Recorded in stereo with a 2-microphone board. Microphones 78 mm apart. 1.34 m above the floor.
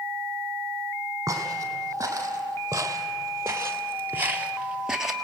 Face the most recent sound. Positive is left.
turn(degrees=-5)  # may be behind; listen again after turning